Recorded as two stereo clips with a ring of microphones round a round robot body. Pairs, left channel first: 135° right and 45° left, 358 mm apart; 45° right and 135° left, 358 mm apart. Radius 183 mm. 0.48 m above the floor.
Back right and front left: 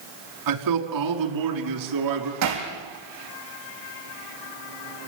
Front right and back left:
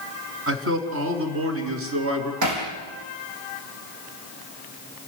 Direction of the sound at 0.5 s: 80° left.